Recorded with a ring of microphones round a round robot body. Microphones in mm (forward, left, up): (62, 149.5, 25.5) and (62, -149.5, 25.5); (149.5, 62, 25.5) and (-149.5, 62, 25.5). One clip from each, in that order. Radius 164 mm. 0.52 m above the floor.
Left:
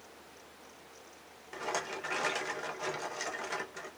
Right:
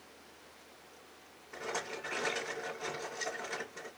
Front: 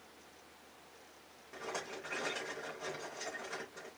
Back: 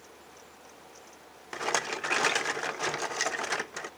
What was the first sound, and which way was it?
A rattle, 160° left.